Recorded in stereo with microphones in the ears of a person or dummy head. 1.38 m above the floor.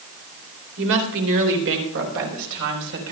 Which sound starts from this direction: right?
A woman speaking, at 0.8 s.